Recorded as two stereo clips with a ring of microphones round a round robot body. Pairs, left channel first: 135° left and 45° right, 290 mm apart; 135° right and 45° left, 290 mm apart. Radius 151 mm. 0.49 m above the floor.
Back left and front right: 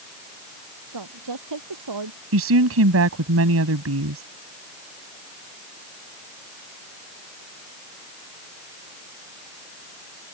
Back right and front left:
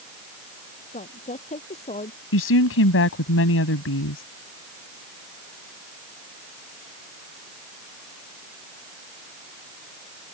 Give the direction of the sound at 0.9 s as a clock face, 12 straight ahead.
2 o'clock.